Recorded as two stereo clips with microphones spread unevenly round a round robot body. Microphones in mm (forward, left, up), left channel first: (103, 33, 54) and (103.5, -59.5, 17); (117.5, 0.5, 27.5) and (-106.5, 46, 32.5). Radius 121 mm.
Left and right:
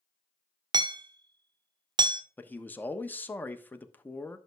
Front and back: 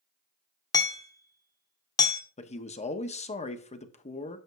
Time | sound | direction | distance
0.7 | hammering | 85° right | 1.1 m
2.4 | a man speaking | 5° right | 1.1 m